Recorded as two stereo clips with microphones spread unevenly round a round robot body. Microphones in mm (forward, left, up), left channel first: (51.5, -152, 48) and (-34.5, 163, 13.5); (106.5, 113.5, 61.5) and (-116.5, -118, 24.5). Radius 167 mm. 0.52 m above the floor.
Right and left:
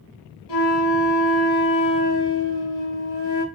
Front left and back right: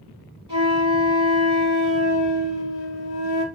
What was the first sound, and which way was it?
A flute, 60° right.